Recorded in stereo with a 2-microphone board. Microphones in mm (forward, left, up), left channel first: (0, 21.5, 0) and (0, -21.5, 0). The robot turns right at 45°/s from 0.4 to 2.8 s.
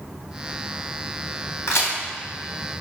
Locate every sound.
1.7 s a crack: 80° left, 2 m